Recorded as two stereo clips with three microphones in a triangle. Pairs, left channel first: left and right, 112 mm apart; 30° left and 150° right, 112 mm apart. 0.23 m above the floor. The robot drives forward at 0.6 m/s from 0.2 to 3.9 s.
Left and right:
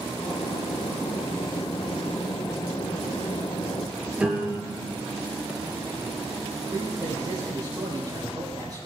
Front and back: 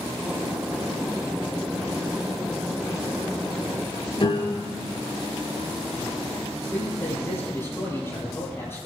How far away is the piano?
About 5 m.